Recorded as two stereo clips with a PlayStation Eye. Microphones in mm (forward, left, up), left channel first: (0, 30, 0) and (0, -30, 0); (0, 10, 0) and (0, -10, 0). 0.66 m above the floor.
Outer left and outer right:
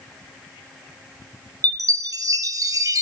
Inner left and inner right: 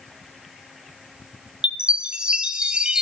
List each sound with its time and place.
1.6 s a chime: 80° right, 0.9 m